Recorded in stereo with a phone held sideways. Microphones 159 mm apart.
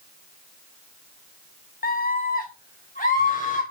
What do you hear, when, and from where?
1.8 s a scream: 70° left (ahead or behind), 0.5 m; by 3.6 s 50° left (ahead or behind), 1.9 m